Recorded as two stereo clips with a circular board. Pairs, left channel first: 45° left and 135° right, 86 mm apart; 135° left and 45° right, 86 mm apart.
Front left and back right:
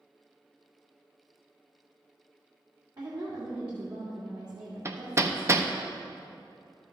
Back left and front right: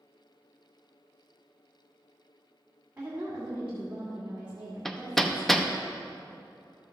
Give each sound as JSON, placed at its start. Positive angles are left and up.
{"t": 3.0, "sound": "a woman speaking", "azimuth_deg": -115, "distance_m": 1.8}
{"t": 4.8, "sound": "hammering", "azimuth_deg": -140, "distance_m": 0.5}